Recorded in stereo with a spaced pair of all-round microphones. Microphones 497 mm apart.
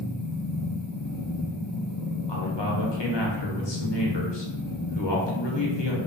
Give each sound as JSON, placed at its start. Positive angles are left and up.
{"t": 0.0, "sound": "a machine running", "side_deg": 45, "distance_m": 0.8}
{"t": 2.3, "sound": "a man speaking", "side_deg": 55, "distance_m": 1.0}